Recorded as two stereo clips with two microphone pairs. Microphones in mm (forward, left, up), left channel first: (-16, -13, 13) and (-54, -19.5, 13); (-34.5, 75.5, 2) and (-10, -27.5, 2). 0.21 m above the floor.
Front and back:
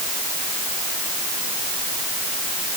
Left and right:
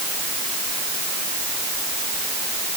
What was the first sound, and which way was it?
Only background noise.